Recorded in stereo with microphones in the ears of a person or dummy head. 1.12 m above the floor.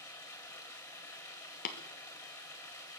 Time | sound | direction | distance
0.0 | running water | 15° left (ahead or behind) | 2.5 m
1.6 | tapping | 45° left (ahead or behind) | 1.1 m